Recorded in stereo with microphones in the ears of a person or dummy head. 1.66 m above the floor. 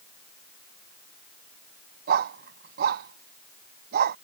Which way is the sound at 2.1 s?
55° right (ahead or behind).